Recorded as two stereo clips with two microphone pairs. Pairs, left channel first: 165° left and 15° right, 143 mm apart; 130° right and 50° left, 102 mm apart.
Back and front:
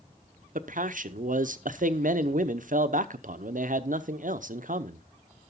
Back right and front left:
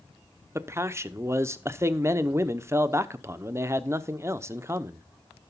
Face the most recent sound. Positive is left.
turn(degrees=-10)